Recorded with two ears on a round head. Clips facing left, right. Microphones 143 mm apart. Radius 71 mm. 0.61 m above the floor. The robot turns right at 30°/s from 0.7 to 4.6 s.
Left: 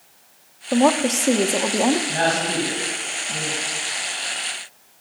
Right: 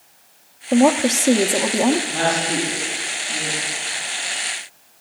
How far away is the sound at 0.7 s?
About 0.6 m.